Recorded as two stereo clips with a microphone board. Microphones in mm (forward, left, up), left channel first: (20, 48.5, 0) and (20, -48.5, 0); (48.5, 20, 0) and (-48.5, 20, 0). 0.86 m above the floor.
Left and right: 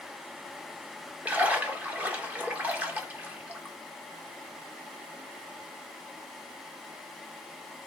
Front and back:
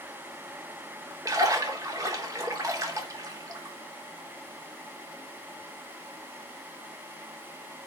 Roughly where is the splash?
Behind right.